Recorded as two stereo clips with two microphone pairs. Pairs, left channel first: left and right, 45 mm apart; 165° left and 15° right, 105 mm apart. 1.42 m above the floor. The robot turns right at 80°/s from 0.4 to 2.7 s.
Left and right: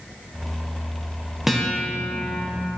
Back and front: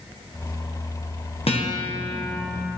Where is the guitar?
Straight behind, 1.4 m; by 2.4 s 105° right, 1.4 m.